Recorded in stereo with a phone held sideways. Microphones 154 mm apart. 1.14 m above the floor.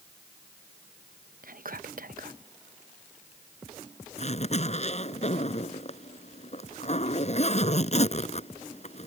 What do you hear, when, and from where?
1.4 s whispering: 65° right (ahead or behind)
4.2 s a zipper: 45° left (ahead or behind)